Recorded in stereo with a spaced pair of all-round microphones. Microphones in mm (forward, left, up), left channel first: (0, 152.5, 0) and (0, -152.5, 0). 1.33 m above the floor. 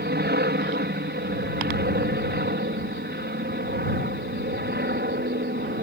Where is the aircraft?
35° right (ahead or behind).